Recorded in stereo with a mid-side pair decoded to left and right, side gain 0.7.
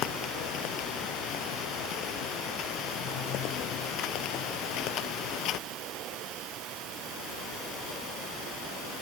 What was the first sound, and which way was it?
Only background noise.